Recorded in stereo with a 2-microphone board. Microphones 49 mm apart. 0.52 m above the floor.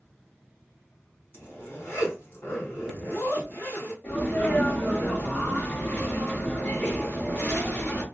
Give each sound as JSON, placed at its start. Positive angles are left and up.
{"t": 1.3, "sound": "a zipper", "side_deg": 55, "distance_m": 1.4}
{"t": 4.0, "sound": "a sneeze", "side_deg": 35, "distance_m": 1.0}